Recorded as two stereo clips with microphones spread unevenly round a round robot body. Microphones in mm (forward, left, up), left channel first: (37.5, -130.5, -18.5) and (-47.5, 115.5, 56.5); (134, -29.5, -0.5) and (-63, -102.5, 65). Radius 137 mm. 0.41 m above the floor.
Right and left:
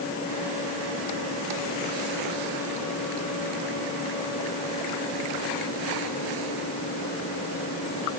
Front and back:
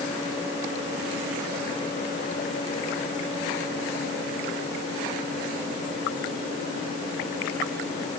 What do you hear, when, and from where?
Only background noise.